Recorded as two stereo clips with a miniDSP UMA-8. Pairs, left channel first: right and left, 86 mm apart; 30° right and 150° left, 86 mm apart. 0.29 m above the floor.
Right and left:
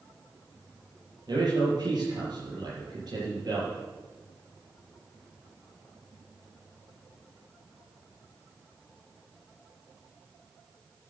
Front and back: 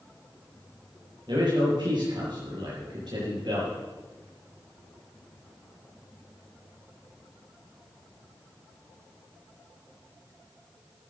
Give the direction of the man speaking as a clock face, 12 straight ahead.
8 o'clock.